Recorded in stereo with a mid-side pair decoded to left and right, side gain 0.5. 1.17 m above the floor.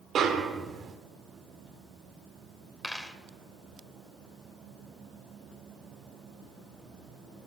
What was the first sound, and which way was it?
A snare drum, 55° right.